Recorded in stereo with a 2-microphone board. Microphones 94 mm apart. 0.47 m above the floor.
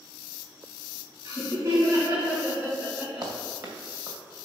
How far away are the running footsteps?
About 2.5 m.